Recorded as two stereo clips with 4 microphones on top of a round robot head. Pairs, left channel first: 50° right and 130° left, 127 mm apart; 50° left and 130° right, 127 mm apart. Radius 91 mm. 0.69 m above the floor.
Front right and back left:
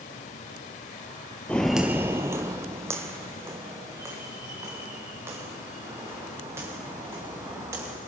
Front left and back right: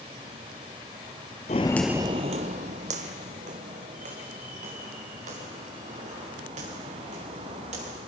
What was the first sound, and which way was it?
Footsteps, 25° left.